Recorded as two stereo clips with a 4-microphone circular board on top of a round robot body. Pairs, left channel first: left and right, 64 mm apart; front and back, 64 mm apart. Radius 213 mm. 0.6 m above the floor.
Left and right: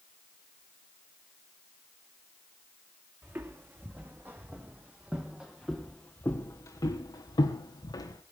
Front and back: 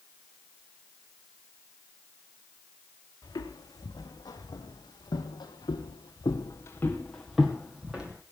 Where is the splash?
No splash in this recording.